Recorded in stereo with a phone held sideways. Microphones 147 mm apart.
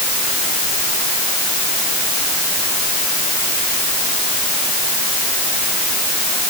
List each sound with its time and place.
Only background noise.